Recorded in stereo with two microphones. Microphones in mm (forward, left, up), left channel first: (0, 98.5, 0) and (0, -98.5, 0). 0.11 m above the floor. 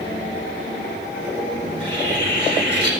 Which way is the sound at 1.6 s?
25° right (ahead or behind).